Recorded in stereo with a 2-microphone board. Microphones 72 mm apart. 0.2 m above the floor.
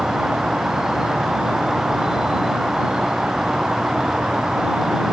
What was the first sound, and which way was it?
An insect, 10° right (ahead or behind).